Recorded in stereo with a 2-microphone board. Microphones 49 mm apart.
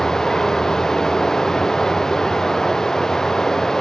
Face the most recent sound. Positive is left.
turn(degrees=10)  # may be behind; listen again after turning